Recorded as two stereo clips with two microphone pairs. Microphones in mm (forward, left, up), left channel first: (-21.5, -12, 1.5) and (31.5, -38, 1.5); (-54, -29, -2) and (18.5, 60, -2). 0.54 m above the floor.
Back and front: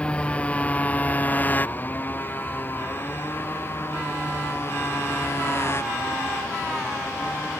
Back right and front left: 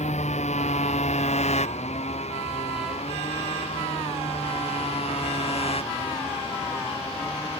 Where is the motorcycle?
135° right; by 7.6 s 160° right.